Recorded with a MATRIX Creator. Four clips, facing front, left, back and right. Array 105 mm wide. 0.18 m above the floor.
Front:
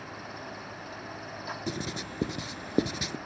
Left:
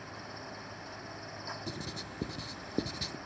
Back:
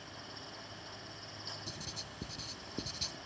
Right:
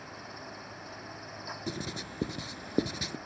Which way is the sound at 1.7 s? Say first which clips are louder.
Right 4 dB, front 13 dB; 20° right.